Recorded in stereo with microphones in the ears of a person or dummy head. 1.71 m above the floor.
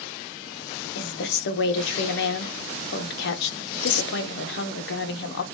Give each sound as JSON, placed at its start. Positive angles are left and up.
{"t": 0.9, "sound": "a woman speaking", "side_deg": 75, "distance_m": 0.9}